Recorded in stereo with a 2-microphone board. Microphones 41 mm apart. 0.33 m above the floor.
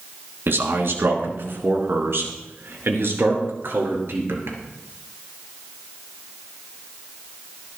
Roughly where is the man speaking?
Right.